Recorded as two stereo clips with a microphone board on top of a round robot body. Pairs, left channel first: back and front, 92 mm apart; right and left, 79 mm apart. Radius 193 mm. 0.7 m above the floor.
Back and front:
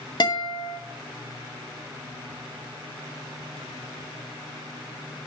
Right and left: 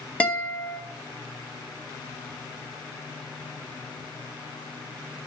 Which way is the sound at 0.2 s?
160° right.